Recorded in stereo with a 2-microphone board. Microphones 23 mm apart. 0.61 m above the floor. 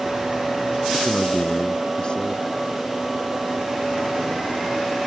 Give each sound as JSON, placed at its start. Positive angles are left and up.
{"t": 0.9, "sound": "a man speaking", "side_deg": 35}